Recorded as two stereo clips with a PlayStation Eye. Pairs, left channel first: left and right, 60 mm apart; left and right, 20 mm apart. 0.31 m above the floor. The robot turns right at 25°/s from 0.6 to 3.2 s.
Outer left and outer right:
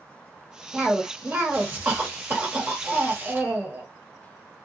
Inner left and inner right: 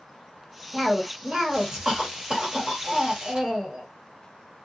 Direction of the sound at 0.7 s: 20° right (ahead or behind).